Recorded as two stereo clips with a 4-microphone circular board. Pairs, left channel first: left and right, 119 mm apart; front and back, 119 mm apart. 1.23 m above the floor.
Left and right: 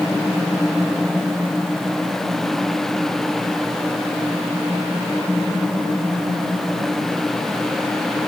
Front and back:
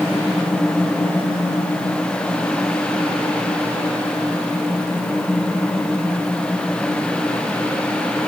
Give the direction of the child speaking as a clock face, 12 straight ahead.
No child speaking in this recording.